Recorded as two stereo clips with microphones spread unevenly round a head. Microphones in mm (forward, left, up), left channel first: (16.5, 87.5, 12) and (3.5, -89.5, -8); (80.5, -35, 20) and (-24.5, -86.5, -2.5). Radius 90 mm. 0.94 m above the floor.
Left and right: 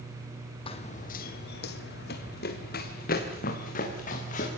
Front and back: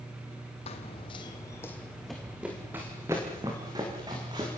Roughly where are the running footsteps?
Ahead left.